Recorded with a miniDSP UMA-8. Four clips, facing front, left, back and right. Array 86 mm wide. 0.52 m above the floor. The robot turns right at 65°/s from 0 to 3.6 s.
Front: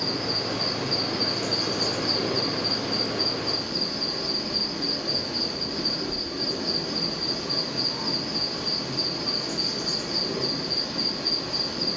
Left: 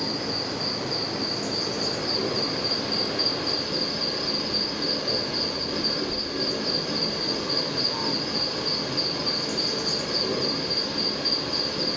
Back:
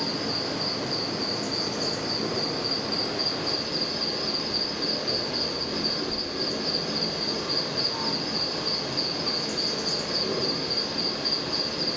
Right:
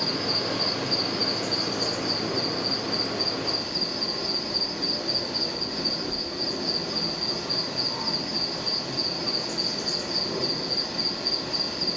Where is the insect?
110° right, 0.9 m; by 12.0 s 125° left, 0.9 m.